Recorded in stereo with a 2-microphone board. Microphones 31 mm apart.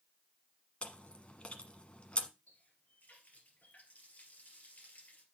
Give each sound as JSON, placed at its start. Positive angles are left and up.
{"t": 0.8, "sound": "chewing", "side_deg": 40, "distance_m": 1.0}
{"t": 2.5, "sound": "a running tap", "side_deg": 65, "distance_m": 2.5}